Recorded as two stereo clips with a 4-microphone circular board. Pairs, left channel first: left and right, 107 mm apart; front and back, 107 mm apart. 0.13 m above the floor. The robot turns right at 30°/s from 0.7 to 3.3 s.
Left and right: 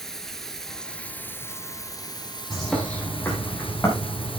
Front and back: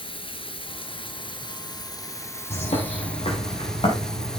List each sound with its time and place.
0.0 s running water: 5° left, 1.2 m; by 4.4 s 85° left, 1.2 m
2.5 s a bird: straight ahead, 5 m; by 4.4 s 25° left, 5 m